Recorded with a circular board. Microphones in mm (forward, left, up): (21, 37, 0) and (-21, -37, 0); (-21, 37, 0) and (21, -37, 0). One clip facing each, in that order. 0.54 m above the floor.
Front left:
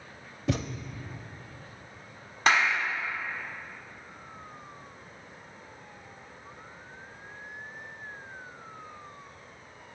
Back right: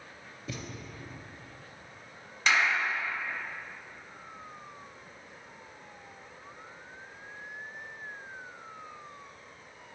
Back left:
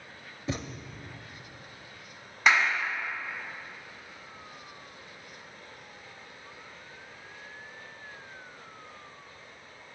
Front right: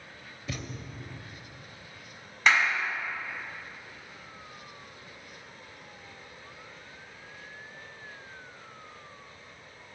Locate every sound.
0.5 s a thud: 55° left, 0.5 m
2.5 s a clap: 35° left, 1.5 m